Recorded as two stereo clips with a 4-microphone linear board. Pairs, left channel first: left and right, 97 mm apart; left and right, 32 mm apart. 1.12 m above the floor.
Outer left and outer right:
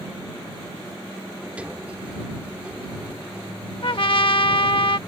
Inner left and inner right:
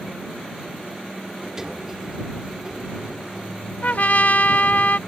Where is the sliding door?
15° right (ahead or behind).